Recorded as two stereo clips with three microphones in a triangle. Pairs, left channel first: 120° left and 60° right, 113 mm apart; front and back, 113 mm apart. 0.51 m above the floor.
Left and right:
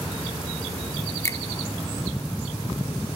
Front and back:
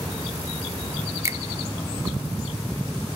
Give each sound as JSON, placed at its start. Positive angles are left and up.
{"t": 1.2, "sound": "a finger snap", "azimuth_deg": 150, "distance_m": 0.8}